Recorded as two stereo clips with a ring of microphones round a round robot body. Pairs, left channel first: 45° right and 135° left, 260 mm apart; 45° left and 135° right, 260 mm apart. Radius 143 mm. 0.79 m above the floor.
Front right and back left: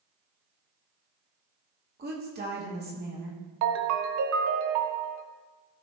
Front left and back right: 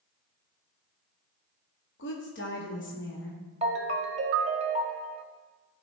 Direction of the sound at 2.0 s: 85° left.